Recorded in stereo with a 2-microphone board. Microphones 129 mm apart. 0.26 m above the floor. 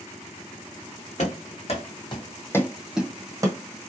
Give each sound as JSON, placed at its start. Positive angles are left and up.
{"t": 1.2, "sound": "running footsteps", "side_deg": 65, "distance_m": 1.2}